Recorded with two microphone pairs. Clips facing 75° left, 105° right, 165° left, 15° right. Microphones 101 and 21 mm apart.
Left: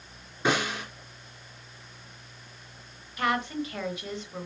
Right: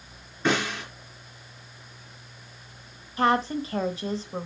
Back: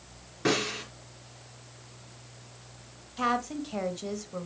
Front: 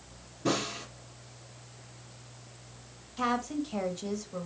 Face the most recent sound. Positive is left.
turn(degrees=-125)